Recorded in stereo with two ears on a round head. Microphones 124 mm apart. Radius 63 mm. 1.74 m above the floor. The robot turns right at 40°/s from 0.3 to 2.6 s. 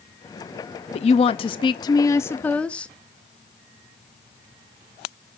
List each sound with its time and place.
0.9 s a woman speaking: 105° left, 0.6 m; by 2.9 s 170° left, 0.6 m